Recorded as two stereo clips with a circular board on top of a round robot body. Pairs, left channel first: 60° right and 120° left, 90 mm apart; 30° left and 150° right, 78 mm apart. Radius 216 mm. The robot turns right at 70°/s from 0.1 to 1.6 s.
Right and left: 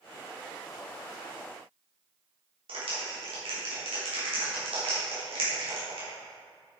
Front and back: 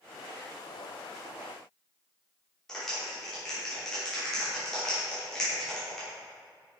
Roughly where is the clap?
Behind left.